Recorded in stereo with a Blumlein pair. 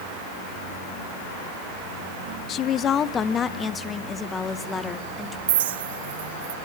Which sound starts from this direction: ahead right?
A clink, at 5.5 s.